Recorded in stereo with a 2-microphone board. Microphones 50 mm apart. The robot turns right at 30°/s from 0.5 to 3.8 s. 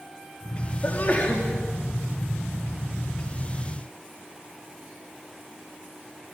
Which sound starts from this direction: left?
A sneeze, at 0.8 s.